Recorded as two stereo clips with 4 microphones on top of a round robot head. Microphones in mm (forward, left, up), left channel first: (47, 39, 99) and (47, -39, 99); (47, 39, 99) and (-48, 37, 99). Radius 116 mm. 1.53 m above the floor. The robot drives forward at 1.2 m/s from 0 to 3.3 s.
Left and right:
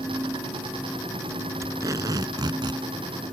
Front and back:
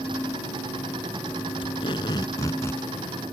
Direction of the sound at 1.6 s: 45° right.